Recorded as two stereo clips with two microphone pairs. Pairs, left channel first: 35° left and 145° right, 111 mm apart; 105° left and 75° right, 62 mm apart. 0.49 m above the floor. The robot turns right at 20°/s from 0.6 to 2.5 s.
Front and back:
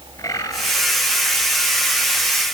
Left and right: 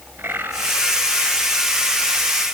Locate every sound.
0.2 s a bird: 20° right, 2.5 m